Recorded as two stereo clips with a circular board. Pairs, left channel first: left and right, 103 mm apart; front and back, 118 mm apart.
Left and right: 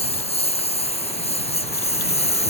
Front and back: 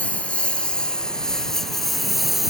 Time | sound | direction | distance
0.0 | a lawn mower | 80° left | ?